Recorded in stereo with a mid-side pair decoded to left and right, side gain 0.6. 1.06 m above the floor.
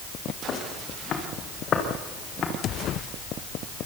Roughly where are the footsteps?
Ahead left.